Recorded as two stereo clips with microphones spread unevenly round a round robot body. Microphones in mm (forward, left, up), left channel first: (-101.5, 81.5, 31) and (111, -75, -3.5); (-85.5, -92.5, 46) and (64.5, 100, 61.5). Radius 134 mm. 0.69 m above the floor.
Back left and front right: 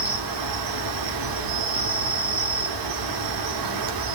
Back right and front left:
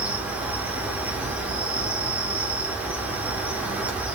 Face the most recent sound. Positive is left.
turn(degrees=-35)